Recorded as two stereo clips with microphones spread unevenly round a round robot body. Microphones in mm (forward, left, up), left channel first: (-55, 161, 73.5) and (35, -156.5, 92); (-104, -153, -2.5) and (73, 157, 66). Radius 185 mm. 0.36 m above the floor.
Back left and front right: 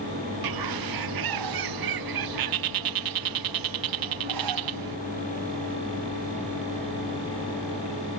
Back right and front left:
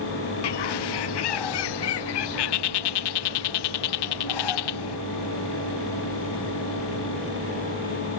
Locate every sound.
0.4 s a bird: 100° right